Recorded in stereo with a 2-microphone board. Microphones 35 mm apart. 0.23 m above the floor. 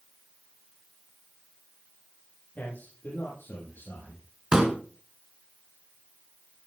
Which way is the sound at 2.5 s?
60° left (ahead or behind).